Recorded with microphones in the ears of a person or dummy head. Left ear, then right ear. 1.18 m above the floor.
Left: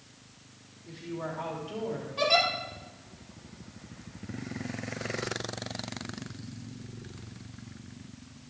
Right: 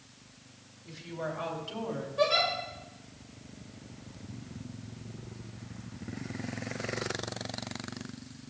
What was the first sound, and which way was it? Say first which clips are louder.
A woman speaking: even; 15° right (ahead or behind).